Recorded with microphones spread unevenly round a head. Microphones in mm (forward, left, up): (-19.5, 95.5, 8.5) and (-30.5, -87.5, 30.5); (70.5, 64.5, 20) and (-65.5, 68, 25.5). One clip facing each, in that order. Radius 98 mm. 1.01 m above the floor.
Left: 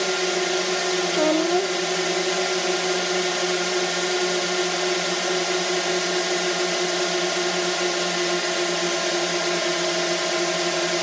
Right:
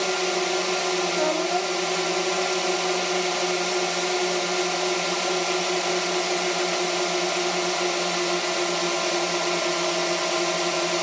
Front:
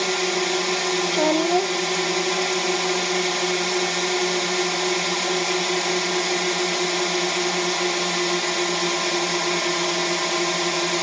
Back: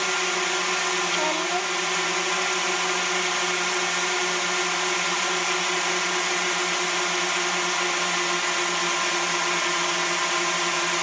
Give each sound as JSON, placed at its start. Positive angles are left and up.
{"t": 0.0, "sound": "a drone", "azimuth_deg": 15}
{"t": 1.1, "sound": "a child speaking", "azimuth_deg": 35}